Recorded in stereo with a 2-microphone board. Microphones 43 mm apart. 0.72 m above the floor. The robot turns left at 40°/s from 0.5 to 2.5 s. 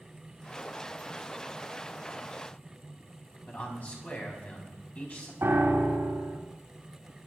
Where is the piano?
75° right (ahead or behind), 3 m.